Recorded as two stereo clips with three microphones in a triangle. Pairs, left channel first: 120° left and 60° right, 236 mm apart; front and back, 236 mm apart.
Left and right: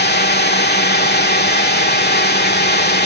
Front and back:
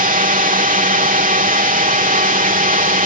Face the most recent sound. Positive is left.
turn(degrees=140)